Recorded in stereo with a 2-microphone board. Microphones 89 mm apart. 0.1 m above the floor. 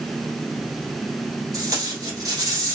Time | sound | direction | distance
1.5 | tape being pulled | 40° right (ahead or behind) | 1.3 m